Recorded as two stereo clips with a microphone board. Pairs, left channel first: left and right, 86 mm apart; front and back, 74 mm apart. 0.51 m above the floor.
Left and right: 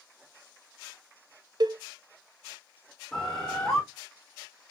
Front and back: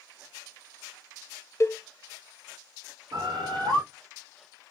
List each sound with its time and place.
1.6 s a cowbell: 55° right, 0.7 m
3.1 s a bird: 175° left, 5 m